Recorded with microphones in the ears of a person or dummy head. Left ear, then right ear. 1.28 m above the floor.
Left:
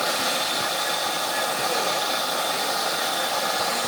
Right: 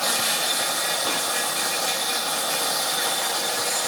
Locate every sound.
0.0 s an insect: 30° right (ahead or behind), 6.5 m